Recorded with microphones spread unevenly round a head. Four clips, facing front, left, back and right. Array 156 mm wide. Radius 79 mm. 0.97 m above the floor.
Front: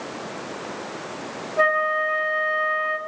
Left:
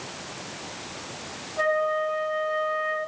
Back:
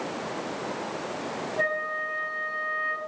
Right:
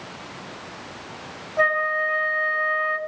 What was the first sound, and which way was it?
A flute, 25° right.